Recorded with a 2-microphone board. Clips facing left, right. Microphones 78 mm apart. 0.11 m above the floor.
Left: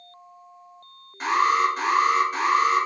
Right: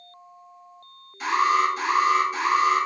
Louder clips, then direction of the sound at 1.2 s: Even; 40° left (ahead or behind).